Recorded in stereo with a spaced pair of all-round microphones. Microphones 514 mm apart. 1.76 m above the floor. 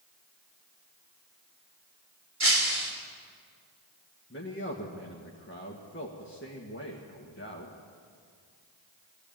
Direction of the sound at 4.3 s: 20° left (ahead or behind).